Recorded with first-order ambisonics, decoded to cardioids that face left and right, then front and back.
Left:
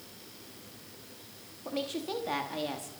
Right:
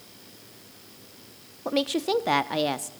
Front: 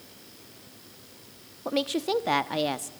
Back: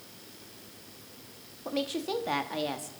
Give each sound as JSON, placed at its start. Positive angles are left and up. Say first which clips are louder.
{"t": 1.6, "sound": "a woman speaking", "louder": "right 9 dB, front 5 dB", "azimuth_deg": -60, "distance_m": 0.7}